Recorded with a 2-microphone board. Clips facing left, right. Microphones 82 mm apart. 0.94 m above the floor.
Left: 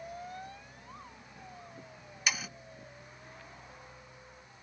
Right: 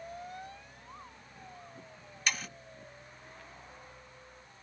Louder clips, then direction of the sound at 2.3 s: Even; 5° left (ahead or behind).